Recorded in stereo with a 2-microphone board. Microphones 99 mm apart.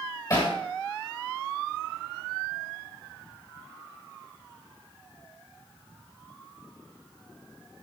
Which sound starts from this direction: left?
Hammering, at 0.3 s.